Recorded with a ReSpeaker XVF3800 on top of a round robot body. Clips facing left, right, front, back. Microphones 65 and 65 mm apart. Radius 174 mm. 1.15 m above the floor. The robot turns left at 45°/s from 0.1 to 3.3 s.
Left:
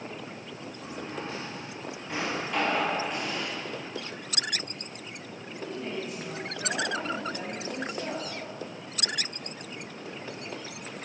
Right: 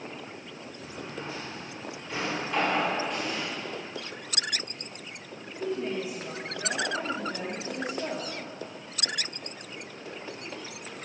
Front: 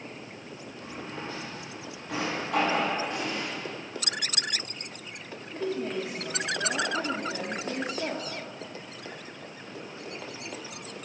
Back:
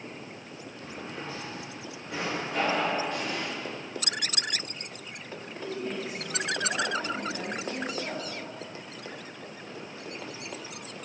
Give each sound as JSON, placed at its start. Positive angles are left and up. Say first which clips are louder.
{"t": 0.8, "sound": "a drawer", "louder": "left 2 dB, front 1 dB", "azimuth_deg": 80, "distance_m": 7.0}
{"t": 3.1, "sound": "an explosion", "louder": "even, even", "azimuth_deg": 5, "distance_m": 5.5}
{"t": 5.5, "sound": "a woman speaking", "louder": "right 4 dB, front 4 dB", "azimuth_deg": -10, "distance_m": 3.0}